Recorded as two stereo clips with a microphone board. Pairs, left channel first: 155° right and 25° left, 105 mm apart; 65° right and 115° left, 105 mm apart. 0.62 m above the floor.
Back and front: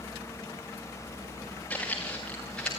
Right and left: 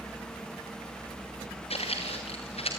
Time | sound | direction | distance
1.7 | footsteps | 80° right | 6 m